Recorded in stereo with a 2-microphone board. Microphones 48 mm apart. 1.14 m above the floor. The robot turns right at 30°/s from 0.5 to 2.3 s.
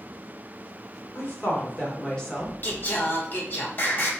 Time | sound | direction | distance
1.1 | a woman speaking | 125° left | 1.0 m
2.6 | singing | 40° left (ahead or behind) | 0.9 m